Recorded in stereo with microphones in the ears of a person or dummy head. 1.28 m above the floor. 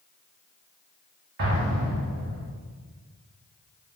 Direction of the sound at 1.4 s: 55° right (ahead or behind).